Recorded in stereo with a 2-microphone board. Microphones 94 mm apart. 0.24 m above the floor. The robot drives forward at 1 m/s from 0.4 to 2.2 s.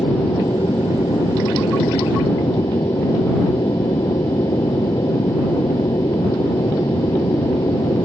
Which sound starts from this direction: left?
An aircraft, at 0.0 s.